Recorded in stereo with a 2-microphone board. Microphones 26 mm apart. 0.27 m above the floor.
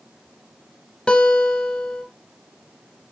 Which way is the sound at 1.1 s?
35° left (ahead or behind).